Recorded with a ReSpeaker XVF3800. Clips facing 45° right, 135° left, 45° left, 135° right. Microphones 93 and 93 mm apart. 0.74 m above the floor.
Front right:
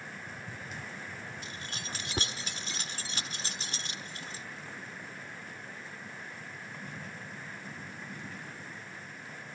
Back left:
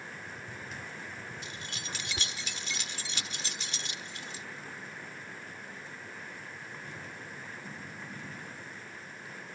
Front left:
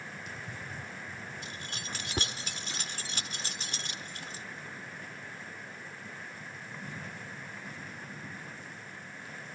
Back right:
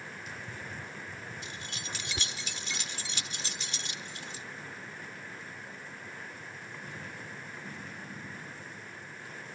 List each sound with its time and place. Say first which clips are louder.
1.4 s keys jangling: even, even; 5° left